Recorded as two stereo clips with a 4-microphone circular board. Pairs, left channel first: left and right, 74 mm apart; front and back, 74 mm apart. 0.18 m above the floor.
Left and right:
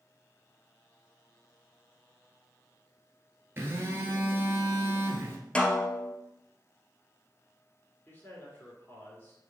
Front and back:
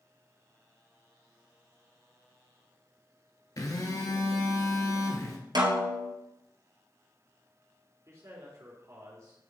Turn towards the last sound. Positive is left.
turn(degrees=145)